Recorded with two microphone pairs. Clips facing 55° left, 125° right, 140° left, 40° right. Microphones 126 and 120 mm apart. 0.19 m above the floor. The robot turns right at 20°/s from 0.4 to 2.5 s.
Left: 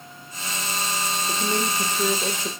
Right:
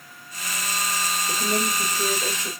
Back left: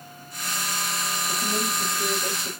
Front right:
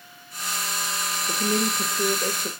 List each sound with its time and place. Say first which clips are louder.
1.3 s a woman speaking: even, front right 5 dB; 35° right, 6.5 m; by 2.5 s 10° right, 6.5 m